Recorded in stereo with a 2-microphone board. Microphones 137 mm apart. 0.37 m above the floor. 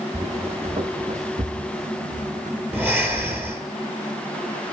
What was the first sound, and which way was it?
Footsteps, 45° right (ahead or behind).